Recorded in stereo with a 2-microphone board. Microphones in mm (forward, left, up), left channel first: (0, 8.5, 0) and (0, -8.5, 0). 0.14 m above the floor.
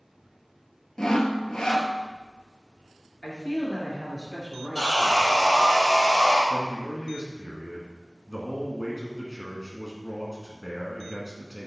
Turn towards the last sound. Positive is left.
turn(degrees=20)  # may be behind; listen again after turning